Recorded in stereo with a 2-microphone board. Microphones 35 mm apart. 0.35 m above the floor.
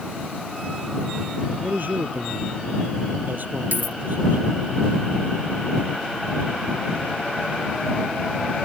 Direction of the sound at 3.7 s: 65° right (ahead or behind).